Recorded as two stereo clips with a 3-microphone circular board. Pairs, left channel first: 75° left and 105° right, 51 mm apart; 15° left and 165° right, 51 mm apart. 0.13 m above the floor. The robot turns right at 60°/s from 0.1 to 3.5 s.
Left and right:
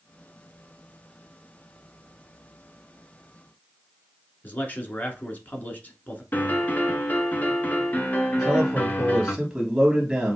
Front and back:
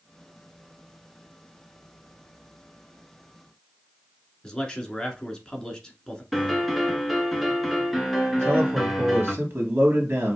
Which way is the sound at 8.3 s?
Straight behind.